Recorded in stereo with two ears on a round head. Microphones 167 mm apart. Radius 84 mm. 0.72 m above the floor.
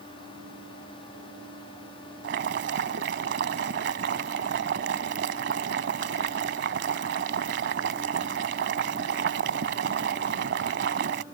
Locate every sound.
2.2 s boiling: 65° right (ahead or behind)